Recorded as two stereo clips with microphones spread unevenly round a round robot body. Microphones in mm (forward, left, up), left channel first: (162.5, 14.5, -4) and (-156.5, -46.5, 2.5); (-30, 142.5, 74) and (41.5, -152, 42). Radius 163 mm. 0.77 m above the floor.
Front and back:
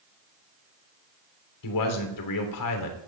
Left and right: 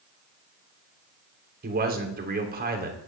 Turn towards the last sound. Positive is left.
turn(degrees=-15)